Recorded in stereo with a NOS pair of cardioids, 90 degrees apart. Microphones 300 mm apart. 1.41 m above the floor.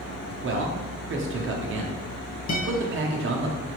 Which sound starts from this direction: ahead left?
A guitar, at 2.5 s.